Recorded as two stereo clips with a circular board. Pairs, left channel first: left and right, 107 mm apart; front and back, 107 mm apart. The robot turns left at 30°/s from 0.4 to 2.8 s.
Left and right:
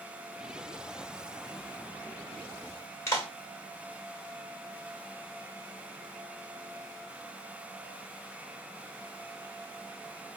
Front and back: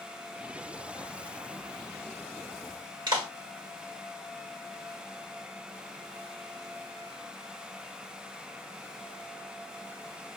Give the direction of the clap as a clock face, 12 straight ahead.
7 o'clock.